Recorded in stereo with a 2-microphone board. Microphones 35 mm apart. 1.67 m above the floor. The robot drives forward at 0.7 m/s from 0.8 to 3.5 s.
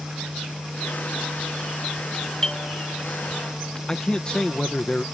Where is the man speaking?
25° left (ahead or behind).